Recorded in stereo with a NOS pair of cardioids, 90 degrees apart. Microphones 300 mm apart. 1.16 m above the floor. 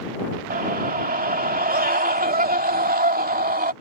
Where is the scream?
30° right.